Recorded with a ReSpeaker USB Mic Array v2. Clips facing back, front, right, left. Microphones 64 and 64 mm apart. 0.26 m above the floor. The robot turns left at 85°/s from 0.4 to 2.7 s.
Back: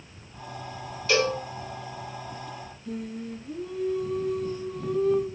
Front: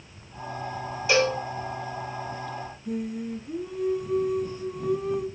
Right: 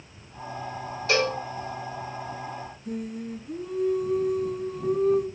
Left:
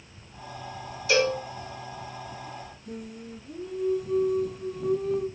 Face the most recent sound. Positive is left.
turn(degrees=-65)